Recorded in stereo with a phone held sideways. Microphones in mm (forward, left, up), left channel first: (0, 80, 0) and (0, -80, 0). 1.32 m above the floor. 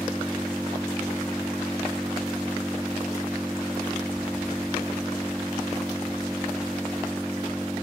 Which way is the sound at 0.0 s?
Centre (ahead or behind).